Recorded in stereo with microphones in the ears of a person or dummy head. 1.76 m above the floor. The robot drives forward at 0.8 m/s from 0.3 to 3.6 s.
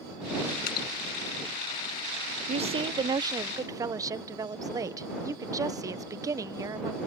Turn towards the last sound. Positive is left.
turn(degrees=-15)  # may be behind; listen again after turning